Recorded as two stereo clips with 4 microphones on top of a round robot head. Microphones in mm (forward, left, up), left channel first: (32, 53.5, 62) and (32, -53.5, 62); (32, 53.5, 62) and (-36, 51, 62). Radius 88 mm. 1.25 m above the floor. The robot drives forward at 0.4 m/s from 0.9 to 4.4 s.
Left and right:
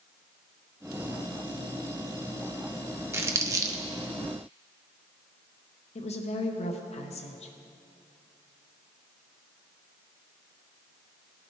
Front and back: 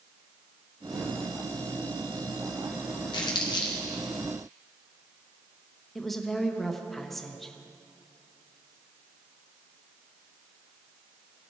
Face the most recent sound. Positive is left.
turn(degrees=90)